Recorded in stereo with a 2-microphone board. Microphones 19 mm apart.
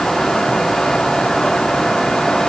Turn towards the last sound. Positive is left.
No sound to turn to.